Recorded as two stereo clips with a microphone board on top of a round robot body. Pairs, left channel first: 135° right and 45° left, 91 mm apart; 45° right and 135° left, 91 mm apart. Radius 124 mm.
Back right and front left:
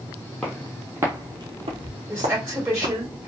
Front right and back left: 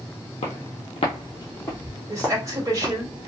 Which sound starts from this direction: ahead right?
Footsteps, at 0.4 s.